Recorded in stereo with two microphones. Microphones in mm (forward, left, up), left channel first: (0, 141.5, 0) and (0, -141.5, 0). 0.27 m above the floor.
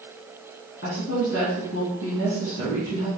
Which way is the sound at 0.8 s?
50° left (ahead or behind).